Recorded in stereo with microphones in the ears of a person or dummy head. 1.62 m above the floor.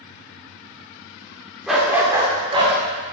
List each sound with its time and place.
1.7 s a dog barking: centre (ahead or behind), 2 m; by 2.8 s 30° right (ahead or behind), 2.5 m